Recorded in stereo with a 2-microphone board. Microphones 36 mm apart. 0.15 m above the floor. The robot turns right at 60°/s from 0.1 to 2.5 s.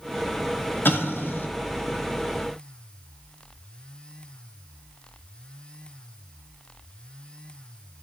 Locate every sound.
0.8 s an explosion: 80° left, 1.0 m; by 1.5 s 65° left (ahead or behind), 1.0 m